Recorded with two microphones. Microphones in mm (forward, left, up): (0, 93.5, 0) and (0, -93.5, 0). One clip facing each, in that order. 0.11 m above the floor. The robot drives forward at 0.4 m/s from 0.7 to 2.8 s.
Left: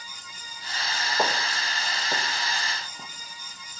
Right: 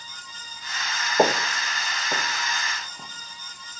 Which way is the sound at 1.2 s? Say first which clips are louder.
Right 8 dB; 40° right (ahead or behind).